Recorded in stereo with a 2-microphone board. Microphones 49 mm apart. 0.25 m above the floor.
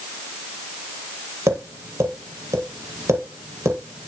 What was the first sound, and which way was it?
Tapping, 70° right (ahead or behind).